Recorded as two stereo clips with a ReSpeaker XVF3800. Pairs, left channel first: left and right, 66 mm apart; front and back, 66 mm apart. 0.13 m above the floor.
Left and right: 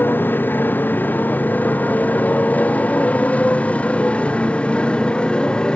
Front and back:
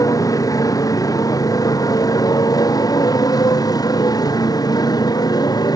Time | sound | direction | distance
0.0 | a motorcycle | 30° left | ?